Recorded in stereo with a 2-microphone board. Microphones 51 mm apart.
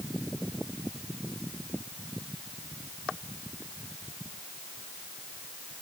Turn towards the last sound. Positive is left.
No sound to turn to.